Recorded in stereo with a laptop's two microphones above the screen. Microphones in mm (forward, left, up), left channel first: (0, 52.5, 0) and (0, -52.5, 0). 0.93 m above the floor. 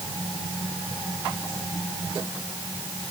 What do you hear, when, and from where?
Only background noise.